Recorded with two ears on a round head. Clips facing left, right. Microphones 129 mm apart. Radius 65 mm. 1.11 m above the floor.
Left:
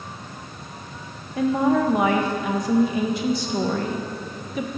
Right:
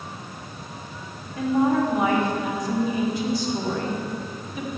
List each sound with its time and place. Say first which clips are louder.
1.4 s a woman speaking: left 1 dB; 60° left (ahead or behind), 0.8 m